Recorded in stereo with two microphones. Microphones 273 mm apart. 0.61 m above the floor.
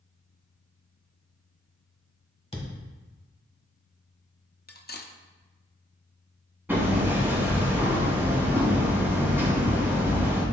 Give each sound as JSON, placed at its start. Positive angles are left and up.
{"t": 2.5, "sound": "a thud", "side_deg": 25, "distance_m": 1.5}
{"t": 4.7, "sound": "cutlery clinking", "side_deg": 40, "distance_m": 0.5}
{"t": 6.7, "sound": "hammering", "side_deg": -10, "distance_m": 2.5}